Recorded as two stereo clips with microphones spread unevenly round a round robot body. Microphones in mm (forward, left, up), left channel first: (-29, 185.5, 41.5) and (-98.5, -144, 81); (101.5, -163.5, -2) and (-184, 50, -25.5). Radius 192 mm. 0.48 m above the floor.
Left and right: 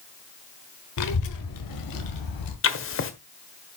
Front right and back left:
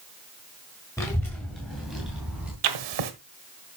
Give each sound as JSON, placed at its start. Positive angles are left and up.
{"t": 1.0, "sound": "a child speaking", "azimuth_deg": 45, "distance_m": 1.2}
{"t": 2.6, "sound": "writing", "azimuth_deg": 125, "distance_m": 1.4}